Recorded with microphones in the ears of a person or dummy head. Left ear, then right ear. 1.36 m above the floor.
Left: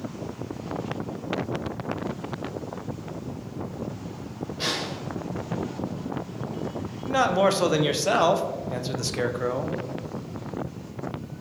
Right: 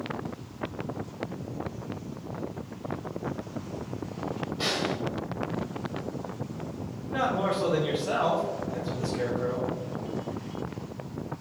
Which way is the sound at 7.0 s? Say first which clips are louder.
Left 6 dB; 85° left.